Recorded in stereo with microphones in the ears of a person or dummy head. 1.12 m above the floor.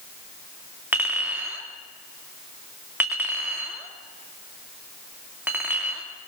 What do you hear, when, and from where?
0.9 s a clink: 10° right (ahead or behind), 2 m